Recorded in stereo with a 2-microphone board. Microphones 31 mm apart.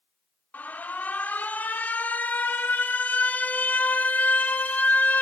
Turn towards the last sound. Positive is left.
turn(degrees=65)  # may be behind; listen again after turning